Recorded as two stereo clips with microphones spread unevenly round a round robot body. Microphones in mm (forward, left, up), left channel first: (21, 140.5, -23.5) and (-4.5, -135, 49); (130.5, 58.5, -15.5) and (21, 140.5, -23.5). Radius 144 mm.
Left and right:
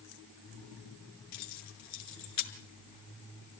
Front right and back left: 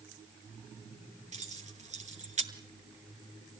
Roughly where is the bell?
I don't hear a bell.